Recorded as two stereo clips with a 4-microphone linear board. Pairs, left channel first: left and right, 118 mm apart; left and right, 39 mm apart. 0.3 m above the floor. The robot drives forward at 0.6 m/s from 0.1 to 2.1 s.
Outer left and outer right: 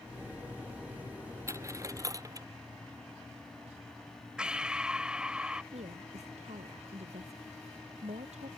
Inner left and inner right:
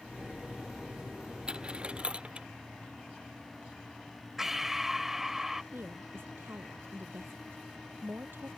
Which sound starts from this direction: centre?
Breathing, at 4.4 s.